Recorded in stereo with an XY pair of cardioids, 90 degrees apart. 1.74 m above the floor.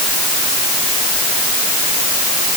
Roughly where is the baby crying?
I don't hear a baby crying.